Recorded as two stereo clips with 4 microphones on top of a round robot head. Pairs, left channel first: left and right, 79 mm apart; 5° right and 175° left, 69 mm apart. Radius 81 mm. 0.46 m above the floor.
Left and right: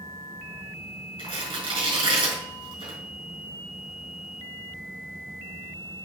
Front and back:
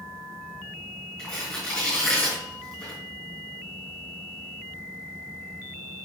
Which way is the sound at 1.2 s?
85° right.